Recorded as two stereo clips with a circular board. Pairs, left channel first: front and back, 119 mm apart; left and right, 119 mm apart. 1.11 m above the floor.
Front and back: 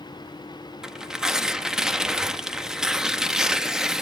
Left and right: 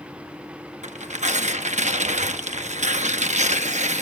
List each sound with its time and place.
0.8 s tearing paper: 95° right, 0.8 m